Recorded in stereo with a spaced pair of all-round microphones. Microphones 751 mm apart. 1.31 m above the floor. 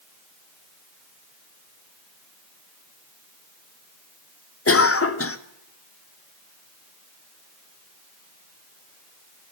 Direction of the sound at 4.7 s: 20° left (ahead or behind).